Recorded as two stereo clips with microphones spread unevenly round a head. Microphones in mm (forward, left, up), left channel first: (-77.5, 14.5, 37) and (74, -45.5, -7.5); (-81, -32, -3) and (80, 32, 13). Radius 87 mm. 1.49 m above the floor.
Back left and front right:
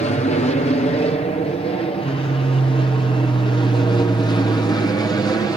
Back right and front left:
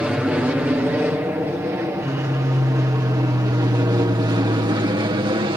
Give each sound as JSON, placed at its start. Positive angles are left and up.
{"t": 0.0, "sound": "an aircraft", "azimuth_deg": 105}